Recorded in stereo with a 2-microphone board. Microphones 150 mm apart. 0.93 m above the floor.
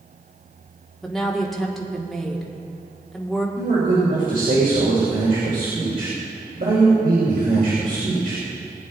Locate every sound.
1.0 s a woman speaking: centre (ahead or behind), 1.8 m
3.6 s a man speaking: 70° right (ahead or behind), 3 m